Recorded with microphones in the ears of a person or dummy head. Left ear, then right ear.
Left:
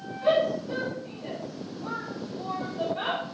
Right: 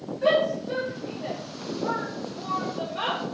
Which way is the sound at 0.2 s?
55° right (ahead or behind).